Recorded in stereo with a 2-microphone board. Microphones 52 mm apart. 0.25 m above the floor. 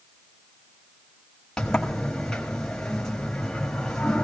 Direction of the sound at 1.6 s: 10° left (ahead or behind).